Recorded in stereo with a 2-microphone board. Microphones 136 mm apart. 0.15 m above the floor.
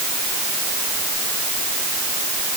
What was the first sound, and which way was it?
Only background noise.